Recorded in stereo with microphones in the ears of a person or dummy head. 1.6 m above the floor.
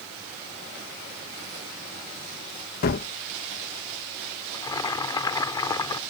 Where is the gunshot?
55° left (ahead or behind).